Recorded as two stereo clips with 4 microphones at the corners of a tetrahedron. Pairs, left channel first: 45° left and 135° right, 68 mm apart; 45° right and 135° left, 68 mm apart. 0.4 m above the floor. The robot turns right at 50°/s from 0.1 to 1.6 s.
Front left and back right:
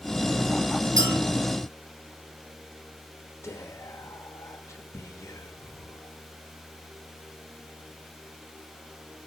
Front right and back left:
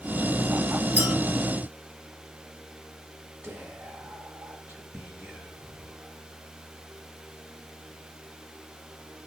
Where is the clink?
160° right, 5.5 m; by 1.1 s 150° right, 5.5 m.